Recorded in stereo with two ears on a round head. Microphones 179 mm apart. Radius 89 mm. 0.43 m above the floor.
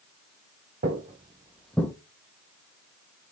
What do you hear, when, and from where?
0.8 s footsteps: 45° right (ahead or behind), 0.6 m; by 1.9 s 15° left (ahead or behind), 0.5 m